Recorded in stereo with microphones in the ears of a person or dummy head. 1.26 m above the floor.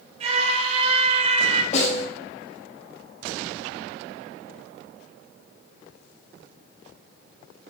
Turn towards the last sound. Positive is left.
turn(degrees=45)  # may be behind; listen again after turning